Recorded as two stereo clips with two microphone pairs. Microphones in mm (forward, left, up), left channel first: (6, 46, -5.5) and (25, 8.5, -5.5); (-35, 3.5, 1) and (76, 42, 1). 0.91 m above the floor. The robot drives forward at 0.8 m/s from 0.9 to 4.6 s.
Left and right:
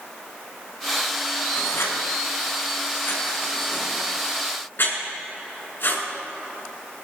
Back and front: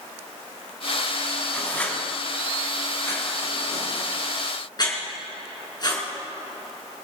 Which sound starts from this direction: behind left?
Writing, at 1.5 s.